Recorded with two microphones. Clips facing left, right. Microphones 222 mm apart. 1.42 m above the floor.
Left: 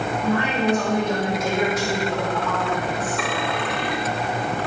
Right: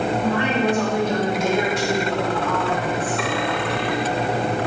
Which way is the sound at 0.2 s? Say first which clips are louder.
Left 2 dB; 30° right (ahead or behind).